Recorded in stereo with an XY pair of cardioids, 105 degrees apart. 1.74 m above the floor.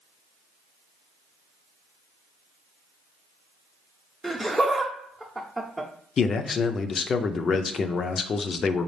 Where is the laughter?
5° right, 0.8 m.